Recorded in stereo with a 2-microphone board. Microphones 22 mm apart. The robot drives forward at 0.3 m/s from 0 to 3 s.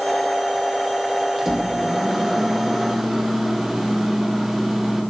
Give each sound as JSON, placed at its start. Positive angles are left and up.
{"t": 1.4, "sound": "a microwave", "side_deg": -10, "distance_m": 2.5}